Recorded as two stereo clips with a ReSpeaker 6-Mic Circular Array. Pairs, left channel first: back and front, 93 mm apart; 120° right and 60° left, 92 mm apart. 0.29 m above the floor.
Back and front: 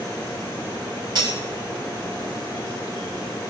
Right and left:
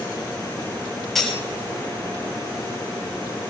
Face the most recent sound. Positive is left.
turn(degrees=-35)